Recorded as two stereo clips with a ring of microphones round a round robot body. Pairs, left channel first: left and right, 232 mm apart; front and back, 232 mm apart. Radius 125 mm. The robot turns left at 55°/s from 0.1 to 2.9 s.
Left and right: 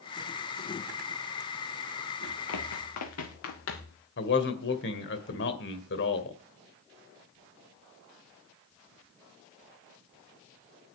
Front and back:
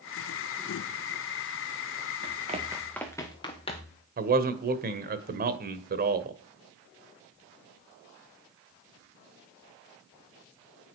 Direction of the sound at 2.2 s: 145° left.